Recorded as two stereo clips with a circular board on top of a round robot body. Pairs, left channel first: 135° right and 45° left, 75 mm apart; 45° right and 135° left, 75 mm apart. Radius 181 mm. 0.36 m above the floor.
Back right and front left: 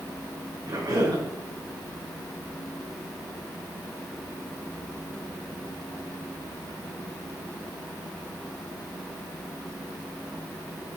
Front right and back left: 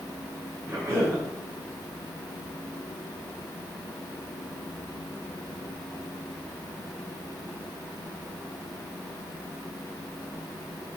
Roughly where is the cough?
Left.